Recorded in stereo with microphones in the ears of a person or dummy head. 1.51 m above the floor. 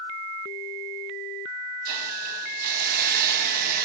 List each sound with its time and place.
1.9 s a hiss: 50° right (ahead or behind), 1.3 m